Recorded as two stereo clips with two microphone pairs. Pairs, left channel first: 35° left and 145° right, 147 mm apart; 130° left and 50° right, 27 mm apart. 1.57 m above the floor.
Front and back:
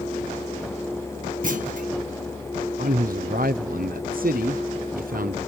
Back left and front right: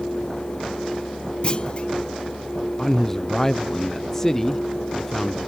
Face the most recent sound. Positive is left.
turn(degrees=-155)